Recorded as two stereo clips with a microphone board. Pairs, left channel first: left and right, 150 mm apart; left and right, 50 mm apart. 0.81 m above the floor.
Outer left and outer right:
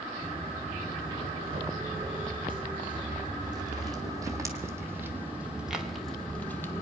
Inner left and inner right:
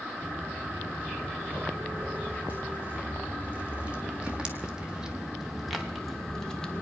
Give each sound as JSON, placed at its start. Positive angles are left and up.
{"t": 0.2, "sound": "footsteps", "side_deg": -40, "distance_m": 4.0}